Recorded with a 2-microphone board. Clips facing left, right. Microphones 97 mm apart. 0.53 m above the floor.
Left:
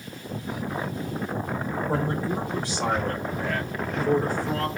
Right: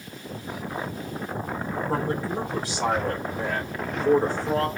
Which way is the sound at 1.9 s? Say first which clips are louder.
Even; 10° left (ahead or behind).